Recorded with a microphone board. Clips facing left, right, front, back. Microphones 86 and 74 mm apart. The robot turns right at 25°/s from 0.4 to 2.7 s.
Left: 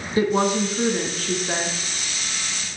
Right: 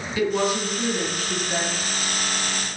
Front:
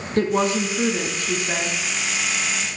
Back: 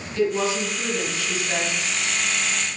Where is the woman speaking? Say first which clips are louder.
Left 3 dB, front 2 dB; 35° left, 3 m; by 1.8 s 70° left, 3 m.